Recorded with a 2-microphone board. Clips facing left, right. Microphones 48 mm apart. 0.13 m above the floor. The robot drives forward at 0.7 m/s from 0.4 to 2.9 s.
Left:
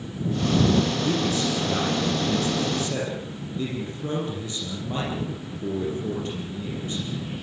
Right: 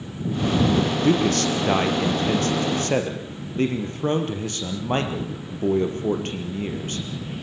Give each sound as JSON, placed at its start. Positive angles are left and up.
{"t": 1.0, "sound": "a man speaking", "side_deg": -65, "distance_m": 3.0}